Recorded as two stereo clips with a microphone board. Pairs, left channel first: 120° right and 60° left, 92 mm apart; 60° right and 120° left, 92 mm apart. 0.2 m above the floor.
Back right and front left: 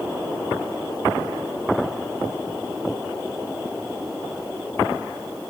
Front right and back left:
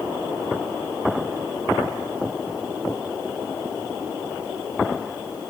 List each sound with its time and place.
Only background noise.